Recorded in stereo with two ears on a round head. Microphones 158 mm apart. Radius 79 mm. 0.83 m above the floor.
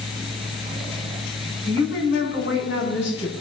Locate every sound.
1.6 s a woman speaking: 65° left (ahead or behind), 7 m; by 3.3 s 75° left (ahead or behind), 6 m